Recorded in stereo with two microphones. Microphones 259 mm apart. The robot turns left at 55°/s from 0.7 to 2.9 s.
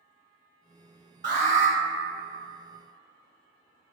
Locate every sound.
1.2 s an alarm: 45° right (ahead or behind), 1.1 m; by 1.8 s 35° right (ahead or behind), 1.1 m